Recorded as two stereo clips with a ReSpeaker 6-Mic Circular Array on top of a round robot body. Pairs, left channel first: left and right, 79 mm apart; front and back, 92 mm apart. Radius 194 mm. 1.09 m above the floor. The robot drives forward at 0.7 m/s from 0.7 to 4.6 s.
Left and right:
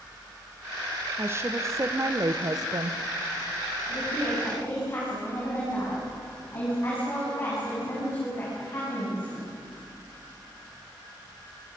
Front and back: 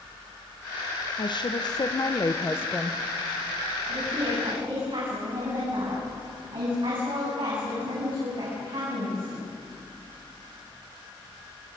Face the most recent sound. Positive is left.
turn(degrees=150)